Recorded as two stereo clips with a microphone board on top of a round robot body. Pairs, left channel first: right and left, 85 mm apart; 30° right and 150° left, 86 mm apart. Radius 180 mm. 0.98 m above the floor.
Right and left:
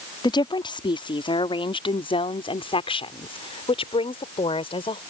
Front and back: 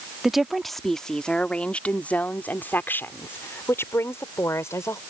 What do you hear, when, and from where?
0.2 s a woman speaking: 125° right; by 5.0 s 90° right